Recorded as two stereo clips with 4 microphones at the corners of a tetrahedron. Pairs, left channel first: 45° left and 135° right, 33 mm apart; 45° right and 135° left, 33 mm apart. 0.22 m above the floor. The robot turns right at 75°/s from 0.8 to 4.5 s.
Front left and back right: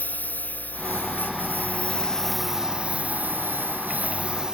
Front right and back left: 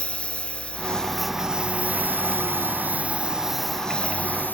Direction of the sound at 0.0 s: 15° left.